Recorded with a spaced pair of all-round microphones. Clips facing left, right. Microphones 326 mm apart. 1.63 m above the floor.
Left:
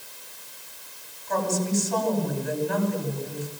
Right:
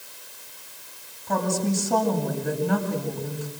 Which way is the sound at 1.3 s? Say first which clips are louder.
Right 1 dB; 70° right (ahead or behind).